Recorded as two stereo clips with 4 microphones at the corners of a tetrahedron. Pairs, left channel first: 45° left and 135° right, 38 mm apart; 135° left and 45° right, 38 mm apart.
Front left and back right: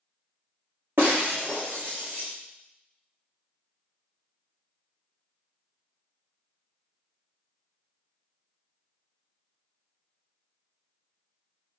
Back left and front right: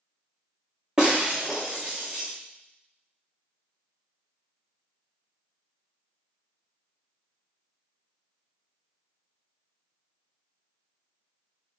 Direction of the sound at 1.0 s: 115° right.